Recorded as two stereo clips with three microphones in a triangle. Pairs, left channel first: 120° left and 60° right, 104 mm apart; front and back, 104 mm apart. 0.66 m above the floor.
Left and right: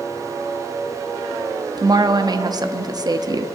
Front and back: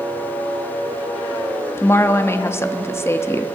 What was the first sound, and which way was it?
A woman speaking, 50° right.